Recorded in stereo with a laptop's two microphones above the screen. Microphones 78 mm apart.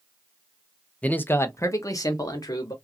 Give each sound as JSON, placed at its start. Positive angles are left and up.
{"t": 1.0, "sound": "a man speaking", "side_deg": 20, "distance_m": 0.6}